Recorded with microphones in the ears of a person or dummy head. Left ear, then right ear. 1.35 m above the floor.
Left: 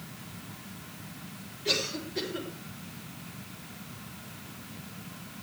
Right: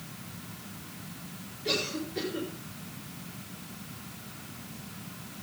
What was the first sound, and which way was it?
A cough, 5° left (ahead or behind).